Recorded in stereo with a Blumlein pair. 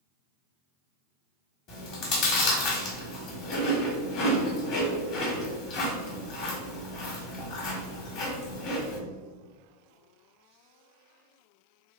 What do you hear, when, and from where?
1.7 s chewing: 40° left, 1.5 m